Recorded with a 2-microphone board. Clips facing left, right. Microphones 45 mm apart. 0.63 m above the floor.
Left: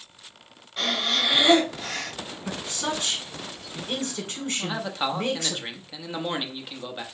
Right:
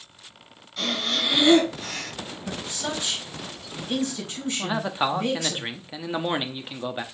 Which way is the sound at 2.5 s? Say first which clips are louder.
Left 2 dB; 45° left (ahead or behind).